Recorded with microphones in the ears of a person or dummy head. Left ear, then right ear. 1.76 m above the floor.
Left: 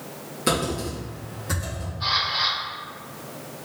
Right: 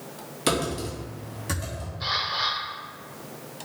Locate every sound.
0.5 s typing on a keyboard: 25° right (ahead or behind), 1.2 m
2.0 s a camera shutter: 20° right (ahead or behind), 1.5 m